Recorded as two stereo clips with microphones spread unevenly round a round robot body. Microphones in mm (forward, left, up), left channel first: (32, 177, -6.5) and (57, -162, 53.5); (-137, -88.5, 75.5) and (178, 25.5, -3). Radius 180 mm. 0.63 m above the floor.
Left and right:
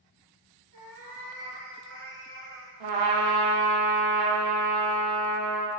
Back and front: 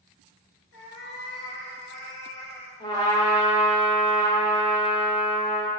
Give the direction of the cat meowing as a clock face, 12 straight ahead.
5 o'clock.